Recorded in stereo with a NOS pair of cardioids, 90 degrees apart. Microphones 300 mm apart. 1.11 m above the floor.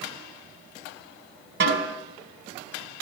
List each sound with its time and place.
1.6 s a snare drum: 45° right, 4.5 m